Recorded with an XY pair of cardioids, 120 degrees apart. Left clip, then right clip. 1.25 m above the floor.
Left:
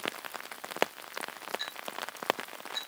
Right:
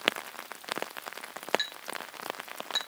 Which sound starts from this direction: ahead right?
A clink, at 1.6 s.